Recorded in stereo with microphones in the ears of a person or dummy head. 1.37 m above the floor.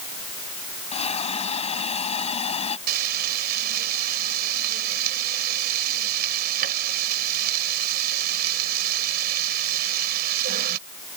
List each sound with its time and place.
0.9 s a hiss: 35° left (ahead or behind)
2.9 s frying: 60° right (ahead or behind)